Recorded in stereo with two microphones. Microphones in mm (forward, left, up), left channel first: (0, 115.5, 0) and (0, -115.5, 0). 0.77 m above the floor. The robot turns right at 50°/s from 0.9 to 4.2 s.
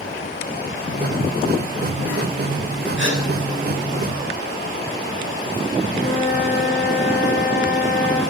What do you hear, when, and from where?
3.0 s a gasp: 55° right (ahead or behind), 7 m; by 3.2 s 65° right (ahead or behind), 7 m
5.9 s a flute: 45° right (ahead or behind), 8.5 m